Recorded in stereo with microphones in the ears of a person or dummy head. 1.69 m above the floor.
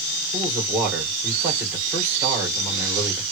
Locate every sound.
0.3 s a man speaking: 10° right (ahead or behind), 1.7 m